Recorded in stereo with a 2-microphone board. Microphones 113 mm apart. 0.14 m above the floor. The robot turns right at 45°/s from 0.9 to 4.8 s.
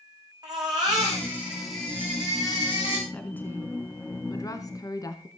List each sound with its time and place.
0.4 s a baby crying: 35° right, 6.5 m; by 3.0 s 55° left, 6.5 m
3.1 s a woman speaking: 20° left, 1.2 m; by 5.3 s 95° left, 1.2 m